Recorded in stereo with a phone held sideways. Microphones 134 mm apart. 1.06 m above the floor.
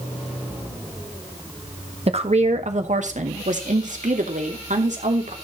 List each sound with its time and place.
2.1 s a woman speaking: 55° right (ahead or behind), 1.4 m; by 5.3 s 75° right (ahead or behind), 3 m